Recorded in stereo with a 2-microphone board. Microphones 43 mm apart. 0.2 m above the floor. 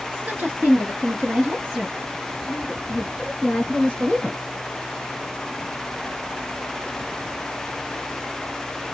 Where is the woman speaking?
45° right (ahead or behind), 1.6 m; by 4.4 s 40° left (ahead or behind), 1.6 m.